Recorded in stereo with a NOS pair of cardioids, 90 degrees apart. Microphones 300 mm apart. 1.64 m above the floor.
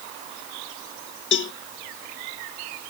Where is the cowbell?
40° left.